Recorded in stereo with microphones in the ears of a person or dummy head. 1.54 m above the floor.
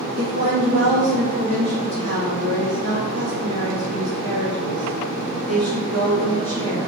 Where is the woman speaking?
60° right (ahead or behind), 1.4 m.